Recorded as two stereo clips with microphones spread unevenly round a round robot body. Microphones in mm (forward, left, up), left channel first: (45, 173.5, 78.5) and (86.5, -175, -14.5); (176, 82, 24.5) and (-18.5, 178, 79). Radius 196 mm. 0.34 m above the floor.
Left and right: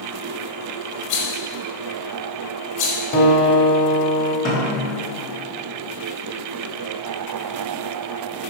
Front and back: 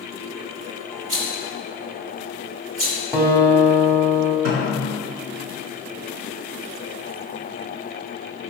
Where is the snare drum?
170° left, 1.4 m.